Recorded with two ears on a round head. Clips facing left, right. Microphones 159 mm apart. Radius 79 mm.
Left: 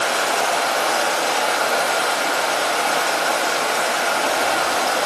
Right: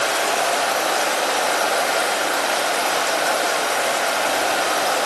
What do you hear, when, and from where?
0.0 s running water: 35° right (ahead or behind), 1.5 m